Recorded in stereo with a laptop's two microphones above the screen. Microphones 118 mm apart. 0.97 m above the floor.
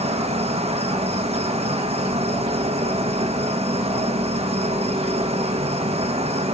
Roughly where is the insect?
Right.